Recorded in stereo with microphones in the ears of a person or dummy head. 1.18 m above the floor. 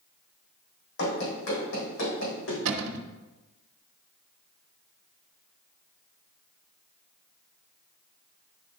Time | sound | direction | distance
1.0 | running footsteps | 65° left (ahead or behind) | 3 m
2.6 | a cupboard door | 80° right | 0.8 m